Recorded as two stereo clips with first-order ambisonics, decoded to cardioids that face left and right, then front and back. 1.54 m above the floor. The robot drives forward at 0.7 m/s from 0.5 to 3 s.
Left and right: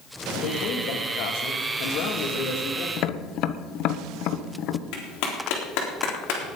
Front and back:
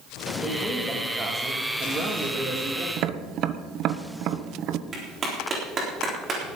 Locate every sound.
0.4 s a man speaking: 95° left, 3 m; by 2.9 s 125° left, 3.5 m
3.0 s tapping: 130° left, 1.0 m; by 4.8 s 135° left, 1.0 m
4.9 s a clap: 110° left, 4 m